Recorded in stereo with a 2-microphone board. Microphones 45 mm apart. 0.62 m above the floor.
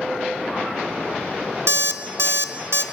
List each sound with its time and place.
1.7 s an alarm clock: 80° right, 0.5 m